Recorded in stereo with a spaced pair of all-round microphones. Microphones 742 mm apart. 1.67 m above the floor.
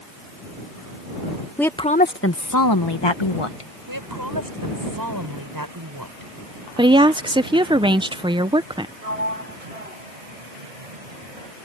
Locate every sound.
1.6 s a woman speaking: centre (ahead or behind); by 3.7 s 45° left (ahead or behind)
3.9 s a woman speaking: 25° right (ahead or behind)
6.8 s a woman speaking: 5° right (ahead or behind)
9.0 s a sliding door: 55° right (ahead or behind)